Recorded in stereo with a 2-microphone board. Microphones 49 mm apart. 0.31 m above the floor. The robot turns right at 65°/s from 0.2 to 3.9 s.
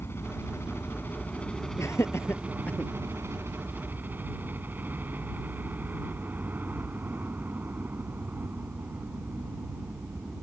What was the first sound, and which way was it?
A helicopter, 70° left.